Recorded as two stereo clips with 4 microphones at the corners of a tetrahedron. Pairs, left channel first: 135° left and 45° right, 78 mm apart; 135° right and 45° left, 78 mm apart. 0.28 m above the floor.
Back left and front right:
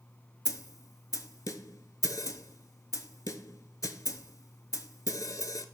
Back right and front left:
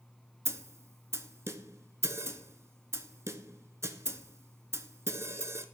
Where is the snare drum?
95° left, 0.5 m.